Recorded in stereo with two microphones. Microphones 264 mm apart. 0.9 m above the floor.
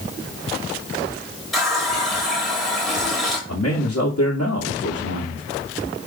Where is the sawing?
I don't hear sawing.